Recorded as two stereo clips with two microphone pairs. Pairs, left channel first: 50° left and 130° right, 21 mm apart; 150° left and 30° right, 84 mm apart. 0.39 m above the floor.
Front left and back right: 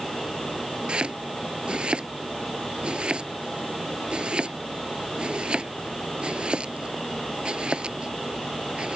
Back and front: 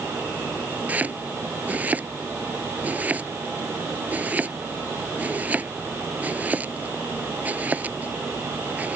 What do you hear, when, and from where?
0.9 s chopping: 100° right